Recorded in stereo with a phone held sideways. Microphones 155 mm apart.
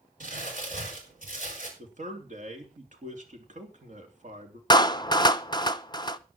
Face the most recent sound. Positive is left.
turn(degrees=30)  # may be behind; listen again after turning